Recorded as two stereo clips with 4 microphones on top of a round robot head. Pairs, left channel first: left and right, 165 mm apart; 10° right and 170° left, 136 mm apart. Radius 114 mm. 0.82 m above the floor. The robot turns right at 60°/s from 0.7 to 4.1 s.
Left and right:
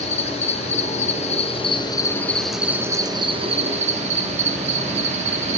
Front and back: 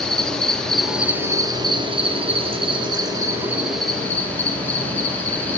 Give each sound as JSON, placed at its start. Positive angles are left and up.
{"t": 0.0, "sound": "an insect", "azimuth_deg": 70, "distance_m": 0.8}